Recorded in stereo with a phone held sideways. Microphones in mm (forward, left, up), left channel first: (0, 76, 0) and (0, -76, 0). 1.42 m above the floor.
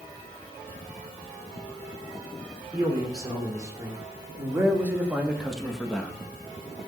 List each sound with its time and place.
2.7 s a man speaking: 25° right (ahead or behind), 4.5 m; by 6.1 s 10° left (ahead or behind), 1.7 m